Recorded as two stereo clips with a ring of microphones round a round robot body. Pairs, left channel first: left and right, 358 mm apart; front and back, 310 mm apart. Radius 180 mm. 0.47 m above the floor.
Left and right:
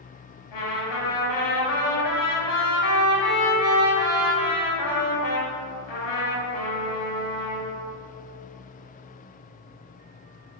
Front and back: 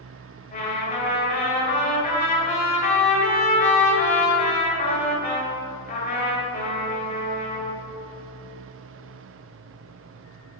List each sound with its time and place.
0.5 s a trumpet: 65° left, 1.9 m